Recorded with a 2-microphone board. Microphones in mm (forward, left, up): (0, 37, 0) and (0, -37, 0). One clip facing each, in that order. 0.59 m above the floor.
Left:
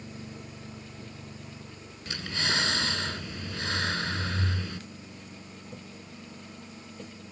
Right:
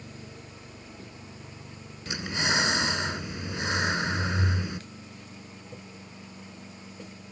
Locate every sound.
2.1 s breathing: 15° right (ahead or behind)